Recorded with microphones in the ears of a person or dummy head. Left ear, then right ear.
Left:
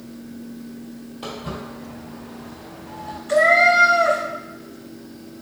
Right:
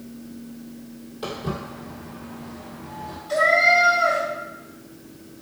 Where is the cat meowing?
30° left (ahead or behind), 0.5 m.